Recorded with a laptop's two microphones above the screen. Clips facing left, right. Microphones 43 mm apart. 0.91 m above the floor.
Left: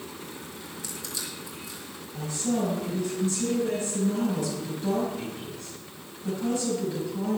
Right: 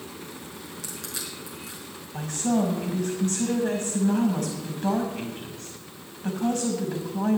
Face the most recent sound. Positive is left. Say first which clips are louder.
# right 3 dB
turn(degrees=-65)  # may be behind; listen again after turning